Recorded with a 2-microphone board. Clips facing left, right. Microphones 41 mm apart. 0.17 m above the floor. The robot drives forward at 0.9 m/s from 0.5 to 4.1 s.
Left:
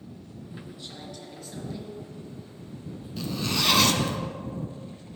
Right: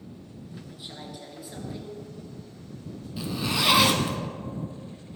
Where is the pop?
I don't hear a pop.